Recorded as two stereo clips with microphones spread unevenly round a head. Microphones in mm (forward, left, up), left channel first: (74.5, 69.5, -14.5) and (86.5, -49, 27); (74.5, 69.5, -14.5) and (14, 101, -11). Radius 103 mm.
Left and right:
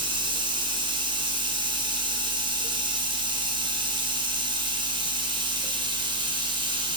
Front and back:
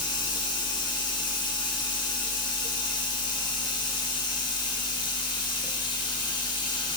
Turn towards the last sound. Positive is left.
turn(degrees=-30)